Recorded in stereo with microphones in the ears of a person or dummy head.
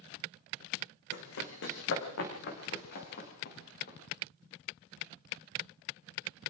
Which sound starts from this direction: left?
Running footsteps, at 1.1 s.